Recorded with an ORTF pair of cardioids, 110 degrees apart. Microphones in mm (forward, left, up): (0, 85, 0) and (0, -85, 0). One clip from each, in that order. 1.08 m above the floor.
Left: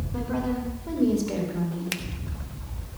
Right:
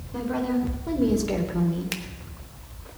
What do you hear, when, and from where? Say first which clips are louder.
0.1 s a woman speaking: right 3 dB; 10° right, 4 m; by 2.0 s 40° right, 3 m
1.9 s a finger snap: left 1 dB; 5° left, 1.2 m